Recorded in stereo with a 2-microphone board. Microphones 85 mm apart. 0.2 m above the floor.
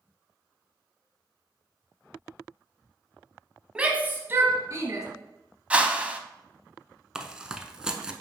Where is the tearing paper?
10° right (ahead or behind), 0.6 m.